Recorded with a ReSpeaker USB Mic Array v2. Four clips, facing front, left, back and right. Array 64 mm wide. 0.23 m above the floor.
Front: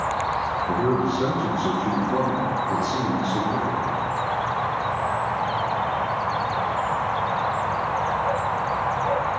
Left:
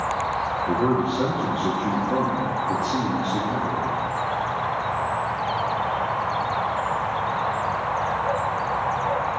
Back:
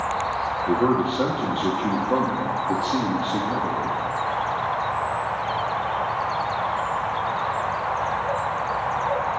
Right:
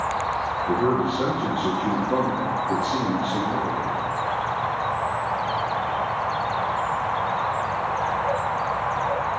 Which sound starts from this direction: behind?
A man speaking, at 0.7 s.